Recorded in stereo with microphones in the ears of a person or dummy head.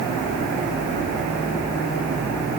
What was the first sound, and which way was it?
Only background noise.